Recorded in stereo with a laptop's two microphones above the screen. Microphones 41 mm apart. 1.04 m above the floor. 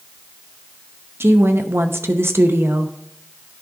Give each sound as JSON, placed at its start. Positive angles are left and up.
{"t": 1.2, "sound": "a woman speaking", "side_deg": -75, "distance_m": 0.7}